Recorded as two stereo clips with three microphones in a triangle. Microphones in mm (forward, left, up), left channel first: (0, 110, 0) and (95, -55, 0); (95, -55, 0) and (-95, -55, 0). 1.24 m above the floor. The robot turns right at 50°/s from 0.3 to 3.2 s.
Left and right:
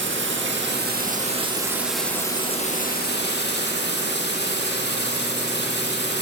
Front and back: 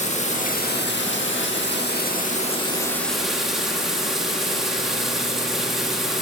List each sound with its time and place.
0.0 s running water: 55° right, 1.5 m; by 6.2 s 90° left, 1.5 m